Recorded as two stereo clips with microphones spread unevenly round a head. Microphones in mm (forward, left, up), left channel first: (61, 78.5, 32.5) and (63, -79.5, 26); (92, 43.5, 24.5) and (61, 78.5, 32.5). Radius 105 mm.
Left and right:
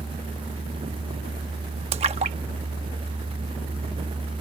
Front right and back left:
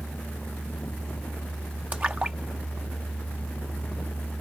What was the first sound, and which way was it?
A splash, 150° right.